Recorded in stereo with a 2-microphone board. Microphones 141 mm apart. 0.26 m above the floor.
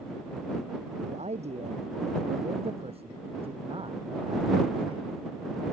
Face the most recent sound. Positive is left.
turn(degrees=-35)  # may be behind; listen again after turning